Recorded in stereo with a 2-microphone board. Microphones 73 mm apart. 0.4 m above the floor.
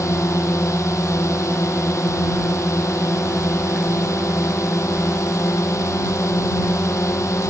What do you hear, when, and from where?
0.0 s a drone: 45° left (ahead or behind)